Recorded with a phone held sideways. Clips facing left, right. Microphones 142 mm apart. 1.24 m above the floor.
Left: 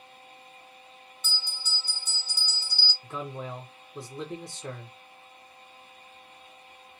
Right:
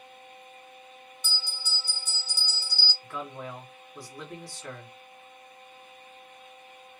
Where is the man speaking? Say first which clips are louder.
Left 2 dB; 20° left (ahead or behind), 0.7 m.